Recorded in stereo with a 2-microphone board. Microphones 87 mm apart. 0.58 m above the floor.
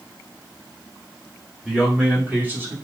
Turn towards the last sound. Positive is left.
turn(degrees=-30)  # may be behind; listen again after turning